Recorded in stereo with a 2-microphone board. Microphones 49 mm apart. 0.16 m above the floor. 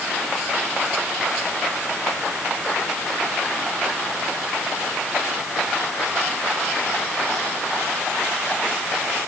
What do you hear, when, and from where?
Only background noise.